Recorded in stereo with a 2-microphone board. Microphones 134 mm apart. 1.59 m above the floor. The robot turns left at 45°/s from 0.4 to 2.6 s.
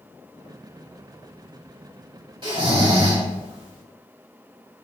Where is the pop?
No pop in this recording.